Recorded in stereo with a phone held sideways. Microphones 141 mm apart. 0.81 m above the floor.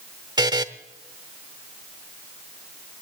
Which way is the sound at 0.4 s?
30° right (ahead or behind).